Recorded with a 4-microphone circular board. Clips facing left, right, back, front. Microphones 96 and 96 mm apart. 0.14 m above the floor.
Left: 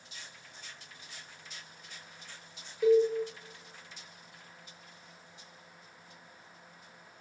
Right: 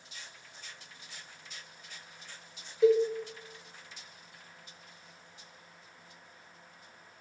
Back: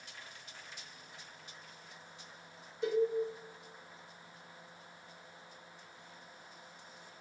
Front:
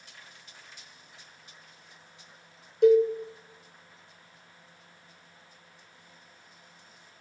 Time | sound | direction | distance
2.8 | a cowbell | 25° right | 1.0 m